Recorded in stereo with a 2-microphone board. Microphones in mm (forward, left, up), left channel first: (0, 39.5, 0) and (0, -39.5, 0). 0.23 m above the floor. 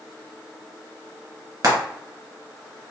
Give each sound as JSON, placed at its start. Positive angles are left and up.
{"t": 1.6, "sound": "frying", "side_deg": -55, "distance_m": 1.7}